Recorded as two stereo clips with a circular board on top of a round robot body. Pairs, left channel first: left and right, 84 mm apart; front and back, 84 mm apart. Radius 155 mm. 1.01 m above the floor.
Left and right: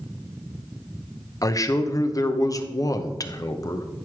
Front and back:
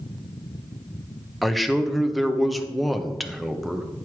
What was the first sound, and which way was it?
A man speaking, 90° left.